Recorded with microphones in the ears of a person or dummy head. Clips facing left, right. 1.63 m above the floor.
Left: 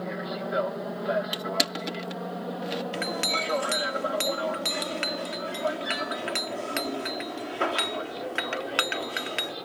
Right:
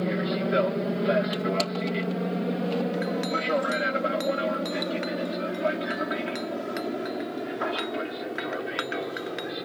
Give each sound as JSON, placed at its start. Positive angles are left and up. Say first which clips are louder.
{"t": 0.0, "sound": "an aircraft", "louder": "right 6 dB", "side_deg": -30}
{"t": 1.3, "sound": "crushing", "louder": "right 4 dB", "side_deg": 20}
{"t": 2.9, "sound": "a clink", "louder": "right 4 dB", "side_deg": 45}